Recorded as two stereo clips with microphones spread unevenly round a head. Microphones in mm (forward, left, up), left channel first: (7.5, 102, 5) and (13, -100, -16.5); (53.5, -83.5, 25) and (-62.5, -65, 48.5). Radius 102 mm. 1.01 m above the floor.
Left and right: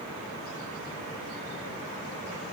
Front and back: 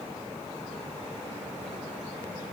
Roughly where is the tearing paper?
No tearing paper in this recording.